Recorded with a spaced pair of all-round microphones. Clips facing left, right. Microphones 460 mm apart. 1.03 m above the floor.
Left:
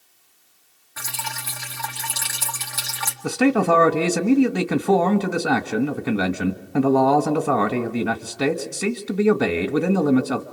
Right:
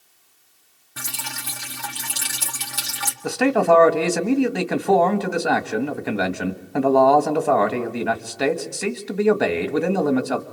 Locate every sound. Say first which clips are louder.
1.0 s dripping: even; 50° right (ahead or behind), 2 m
3.2 s a man speaking: even; 20° left (ahead or behind), 1.9 m